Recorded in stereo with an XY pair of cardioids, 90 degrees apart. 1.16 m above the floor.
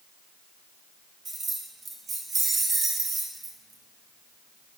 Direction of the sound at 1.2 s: 50° right.